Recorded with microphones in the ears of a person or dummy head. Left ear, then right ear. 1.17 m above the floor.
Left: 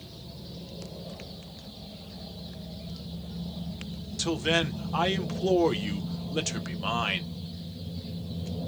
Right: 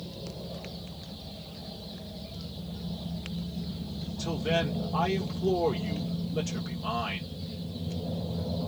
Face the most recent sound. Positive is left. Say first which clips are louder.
# left 3 dB
turn(degrees=45)  # may be behind; listen again after turning